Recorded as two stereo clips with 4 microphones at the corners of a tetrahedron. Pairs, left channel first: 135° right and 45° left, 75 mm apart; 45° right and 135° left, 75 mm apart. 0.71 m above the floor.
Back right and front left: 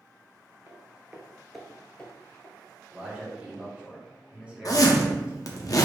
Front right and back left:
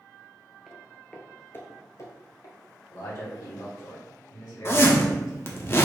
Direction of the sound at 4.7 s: 100° right.